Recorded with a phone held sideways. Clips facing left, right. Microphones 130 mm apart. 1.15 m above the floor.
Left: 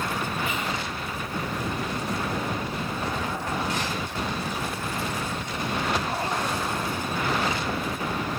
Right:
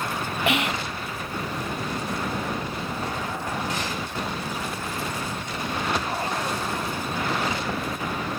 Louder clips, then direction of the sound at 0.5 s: Right 5 dB; 75° right (ahead or behind).